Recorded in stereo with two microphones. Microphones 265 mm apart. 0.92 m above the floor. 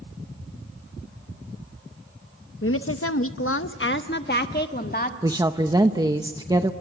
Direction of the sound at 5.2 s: 15° right (ahead or behind).